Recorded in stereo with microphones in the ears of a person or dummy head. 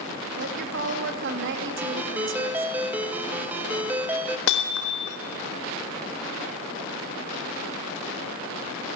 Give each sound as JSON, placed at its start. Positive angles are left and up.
{"t": 0.4, "sound": "a woman speaking", "side_deg": -60, "distance_m": 3.0}
{"t": 1.8, "sound": "a ringtone", "side_deg": -10, "distance_m": 1.3}
{"t": 4.5, "sound": "hammering", "side_deg": 65, "distance_m": 2.0}